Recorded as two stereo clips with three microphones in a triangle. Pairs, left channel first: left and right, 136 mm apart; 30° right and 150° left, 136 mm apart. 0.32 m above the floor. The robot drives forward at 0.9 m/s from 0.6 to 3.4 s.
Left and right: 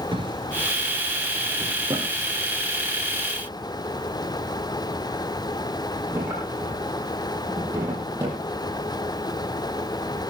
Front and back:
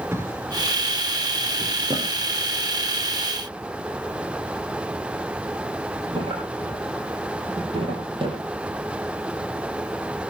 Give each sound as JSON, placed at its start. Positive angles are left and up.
{"t": 0.1, "sound": "a drawer", "azimuth_deg": -140, "distance_m": 2.0}